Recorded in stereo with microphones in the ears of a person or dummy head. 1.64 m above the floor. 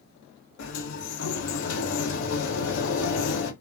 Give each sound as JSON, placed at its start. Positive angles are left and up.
{"t": 0.6, "sound": "a sliding door", "side_deg": 75, "distance_m": 0.9}